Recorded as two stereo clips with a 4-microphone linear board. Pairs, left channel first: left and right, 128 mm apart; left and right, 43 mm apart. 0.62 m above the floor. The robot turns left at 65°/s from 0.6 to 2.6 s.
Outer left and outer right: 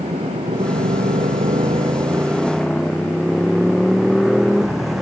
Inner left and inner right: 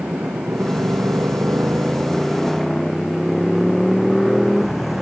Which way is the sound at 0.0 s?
60° right (ahead or behind).